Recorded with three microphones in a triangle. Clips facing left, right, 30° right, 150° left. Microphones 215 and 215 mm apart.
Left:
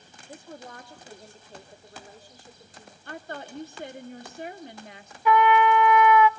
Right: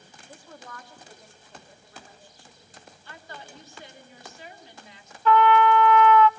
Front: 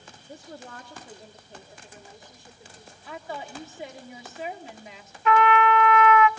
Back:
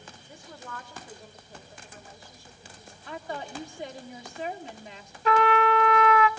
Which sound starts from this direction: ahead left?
A woman speaking, at 3.0 s.